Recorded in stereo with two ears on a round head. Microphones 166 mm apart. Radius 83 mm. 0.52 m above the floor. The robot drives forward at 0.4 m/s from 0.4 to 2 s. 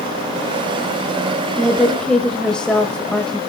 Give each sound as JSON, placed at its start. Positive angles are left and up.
{"t": 1.6, "sound": "a woman speaking", "side_deg": 5, "distance_m": 2.0}